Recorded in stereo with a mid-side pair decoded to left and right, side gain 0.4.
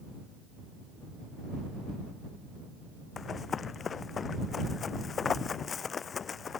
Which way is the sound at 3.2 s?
50° left.